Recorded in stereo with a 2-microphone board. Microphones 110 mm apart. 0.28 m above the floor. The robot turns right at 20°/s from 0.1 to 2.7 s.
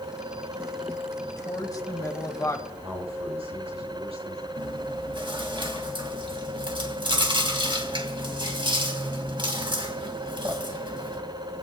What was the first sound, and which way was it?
A woman speaking, 35° left (ahead or behind).